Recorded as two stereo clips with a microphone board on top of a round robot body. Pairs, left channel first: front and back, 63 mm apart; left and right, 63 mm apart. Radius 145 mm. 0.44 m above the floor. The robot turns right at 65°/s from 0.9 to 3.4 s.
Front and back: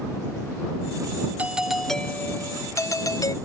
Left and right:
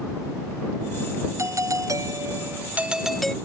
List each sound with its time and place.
1.4 s a doorbell: 115° right; by 3.4 s 10° left